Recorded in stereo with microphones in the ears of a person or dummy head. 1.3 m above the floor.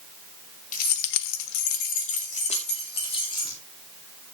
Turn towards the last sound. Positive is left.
turn(degrees=25)  # may be behind; listen again after turning